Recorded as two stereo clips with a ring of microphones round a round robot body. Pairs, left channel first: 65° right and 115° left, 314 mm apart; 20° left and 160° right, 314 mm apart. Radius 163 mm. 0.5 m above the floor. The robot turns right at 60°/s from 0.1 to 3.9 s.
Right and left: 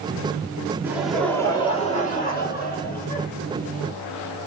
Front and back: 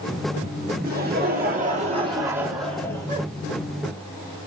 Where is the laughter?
175° right, 1.2 m; by 3.3 s 30° right, 1.2 m.